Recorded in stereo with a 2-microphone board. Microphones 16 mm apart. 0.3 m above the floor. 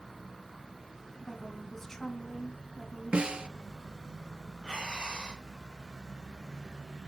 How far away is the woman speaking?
About 2.5 m.